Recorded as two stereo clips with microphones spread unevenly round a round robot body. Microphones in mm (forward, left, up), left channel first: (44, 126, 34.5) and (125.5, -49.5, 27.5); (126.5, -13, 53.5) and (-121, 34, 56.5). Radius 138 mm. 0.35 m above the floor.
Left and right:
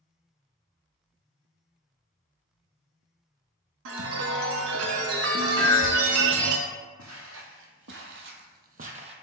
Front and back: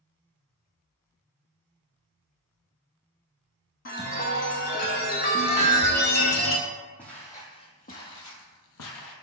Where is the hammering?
135° right, 1.8 m.